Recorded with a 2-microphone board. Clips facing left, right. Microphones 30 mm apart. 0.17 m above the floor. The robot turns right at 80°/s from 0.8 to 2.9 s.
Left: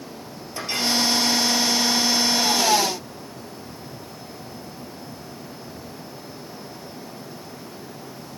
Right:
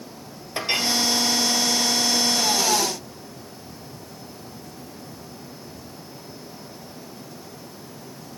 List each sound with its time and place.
0.6 s a clink: 40° right (ahead or behind), 1.9 m; by 0.9 s 35° right (ahead or behind), 1.9 m